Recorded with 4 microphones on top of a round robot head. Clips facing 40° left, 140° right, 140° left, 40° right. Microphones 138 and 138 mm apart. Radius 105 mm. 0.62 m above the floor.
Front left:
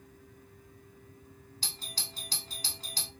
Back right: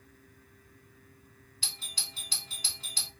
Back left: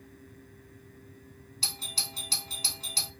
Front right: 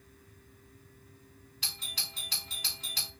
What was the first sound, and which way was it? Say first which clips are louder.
A doorbell: front left 2 dB, back left 5 dB; 90° left.